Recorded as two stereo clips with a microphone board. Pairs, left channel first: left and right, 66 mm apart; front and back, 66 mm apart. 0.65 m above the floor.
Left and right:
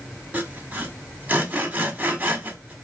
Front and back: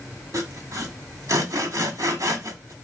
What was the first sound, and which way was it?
Sawing, 155° right.